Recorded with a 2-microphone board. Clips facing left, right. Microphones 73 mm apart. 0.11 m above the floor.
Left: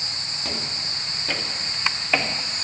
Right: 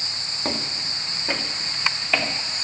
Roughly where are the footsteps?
Right.